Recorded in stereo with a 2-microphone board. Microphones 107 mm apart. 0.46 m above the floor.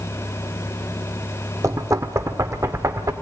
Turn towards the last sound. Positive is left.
turn(degrees=-30)  # may be behind; listen again after turning